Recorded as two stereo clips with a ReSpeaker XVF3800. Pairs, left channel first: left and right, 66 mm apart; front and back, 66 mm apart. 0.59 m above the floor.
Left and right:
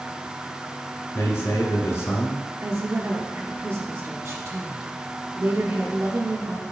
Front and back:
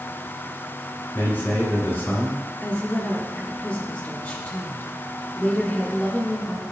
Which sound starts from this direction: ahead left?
A man speaking, at 1.1 s.